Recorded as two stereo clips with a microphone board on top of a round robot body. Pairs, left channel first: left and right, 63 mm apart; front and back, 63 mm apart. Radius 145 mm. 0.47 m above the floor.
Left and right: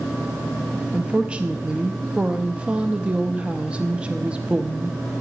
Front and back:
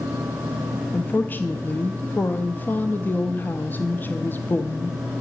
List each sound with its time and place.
0.9 s a woman speaking: 30° right, 0.9 m